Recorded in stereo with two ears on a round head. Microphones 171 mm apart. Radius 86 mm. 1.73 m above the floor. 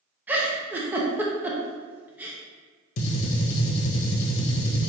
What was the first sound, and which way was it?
A giggle, 10° right (ahead or behind).